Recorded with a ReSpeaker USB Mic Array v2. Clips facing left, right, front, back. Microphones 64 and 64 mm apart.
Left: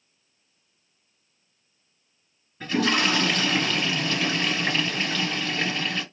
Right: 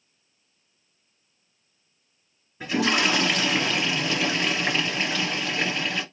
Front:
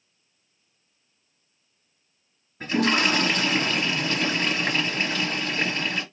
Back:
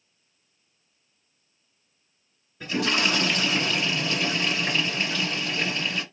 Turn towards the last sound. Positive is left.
turn(degrees=-15)